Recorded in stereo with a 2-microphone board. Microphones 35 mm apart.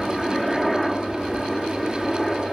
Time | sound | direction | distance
0.0 | a helicopter | centre (ahead or behind) | ?